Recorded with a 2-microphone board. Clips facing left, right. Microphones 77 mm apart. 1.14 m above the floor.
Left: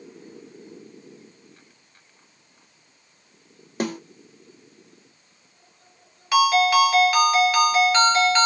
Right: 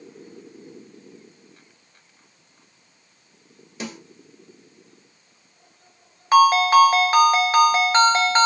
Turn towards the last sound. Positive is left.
turn(degrees=-40)  # may be behind; listen again after turning